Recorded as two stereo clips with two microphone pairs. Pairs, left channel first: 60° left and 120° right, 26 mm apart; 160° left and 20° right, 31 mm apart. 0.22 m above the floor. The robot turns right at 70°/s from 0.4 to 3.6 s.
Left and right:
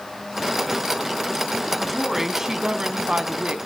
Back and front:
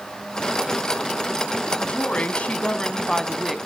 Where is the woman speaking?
135° left, 1.6 m; by 3.6 s 100° right, 1.6 m.